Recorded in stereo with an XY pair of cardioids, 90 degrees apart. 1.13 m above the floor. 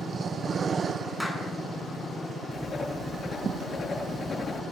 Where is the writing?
35° left, 9 m.